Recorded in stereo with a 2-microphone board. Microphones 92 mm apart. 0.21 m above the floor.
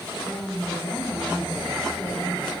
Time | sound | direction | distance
0.2 | a woman speaking | 10° left (ahead or behind) | 1.6 m